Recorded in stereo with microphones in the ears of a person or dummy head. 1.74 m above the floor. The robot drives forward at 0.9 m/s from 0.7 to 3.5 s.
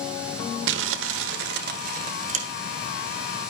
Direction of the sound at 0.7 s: 75° right (ahead or behind).